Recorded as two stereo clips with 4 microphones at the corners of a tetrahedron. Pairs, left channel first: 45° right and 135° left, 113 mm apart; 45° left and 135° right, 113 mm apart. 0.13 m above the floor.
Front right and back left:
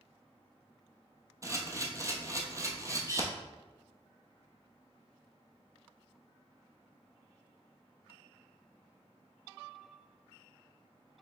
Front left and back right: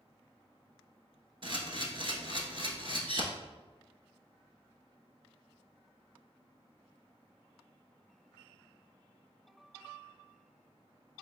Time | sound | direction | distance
1.4 | a camera shutter | 165° right | 0.8 m